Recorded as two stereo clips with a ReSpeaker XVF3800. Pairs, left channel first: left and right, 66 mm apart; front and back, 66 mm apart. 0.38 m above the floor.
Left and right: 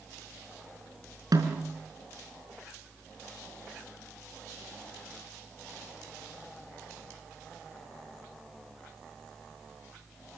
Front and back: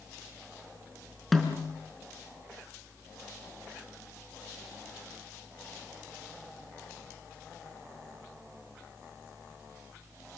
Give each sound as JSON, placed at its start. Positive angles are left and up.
{"t": 1.3, "sound": "a snare drum", "azimuth_deg": -90, "distance_m": 4.0}